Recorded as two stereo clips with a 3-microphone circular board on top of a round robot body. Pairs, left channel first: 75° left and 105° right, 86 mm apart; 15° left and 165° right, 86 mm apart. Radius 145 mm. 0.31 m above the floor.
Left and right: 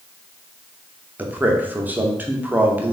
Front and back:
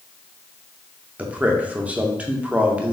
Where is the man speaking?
125° right, 0.9 m.